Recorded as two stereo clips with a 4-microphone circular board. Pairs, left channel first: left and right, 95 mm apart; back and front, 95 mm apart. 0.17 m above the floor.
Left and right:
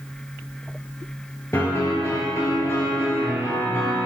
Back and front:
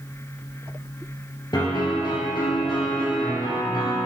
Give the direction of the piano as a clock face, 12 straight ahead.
7 o'clock.